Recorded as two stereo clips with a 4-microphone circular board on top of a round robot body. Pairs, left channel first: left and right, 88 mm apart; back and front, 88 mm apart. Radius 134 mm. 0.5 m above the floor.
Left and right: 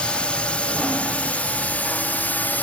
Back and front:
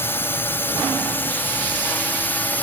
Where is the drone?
155° left; by 2.6 s 135° left.